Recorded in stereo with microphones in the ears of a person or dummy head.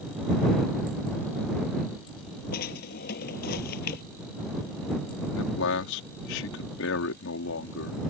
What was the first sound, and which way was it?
A drawer, 55° left (ahead or behind).